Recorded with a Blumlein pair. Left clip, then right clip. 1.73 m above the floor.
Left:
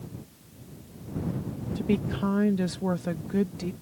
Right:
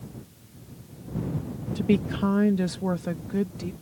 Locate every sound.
1.8 s a woman speaking: 15° right; by 3.7 s 5° left